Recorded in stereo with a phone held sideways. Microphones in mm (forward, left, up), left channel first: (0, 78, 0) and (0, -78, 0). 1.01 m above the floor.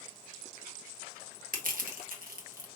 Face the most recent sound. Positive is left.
turn(degrees=-70)  # may be behind; listen again after turning